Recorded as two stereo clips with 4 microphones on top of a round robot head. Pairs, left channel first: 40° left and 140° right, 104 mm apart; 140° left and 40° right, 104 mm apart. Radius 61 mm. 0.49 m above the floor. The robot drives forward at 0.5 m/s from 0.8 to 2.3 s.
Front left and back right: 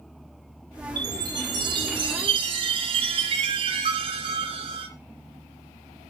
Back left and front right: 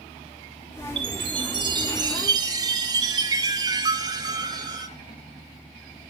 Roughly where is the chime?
Right.